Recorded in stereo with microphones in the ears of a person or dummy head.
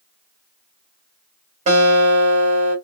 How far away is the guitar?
About 2 m.